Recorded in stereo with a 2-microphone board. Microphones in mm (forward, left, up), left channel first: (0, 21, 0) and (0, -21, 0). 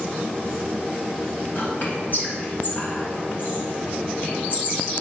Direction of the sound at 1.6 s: 55° left (ahead or behind).